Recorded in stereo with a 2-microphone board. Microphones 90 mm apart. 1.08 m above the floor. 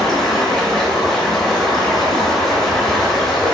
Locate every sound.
0.0 s running water: 5° left (ahead or behind), 1.2 m